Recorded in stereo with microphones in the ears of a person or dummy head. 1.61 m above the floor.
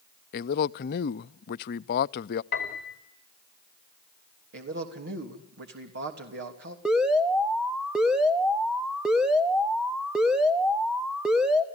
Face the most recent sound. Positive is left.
turn(degrees=-5)  # may be behind; listen again after turning